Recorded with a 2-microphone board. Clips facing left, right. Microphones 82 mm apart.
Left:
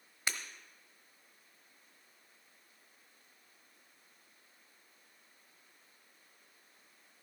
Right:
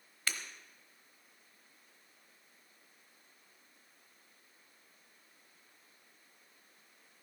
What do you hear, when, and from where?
0.3 s breaking glass: 20° left (ahead or behind), 1.0 m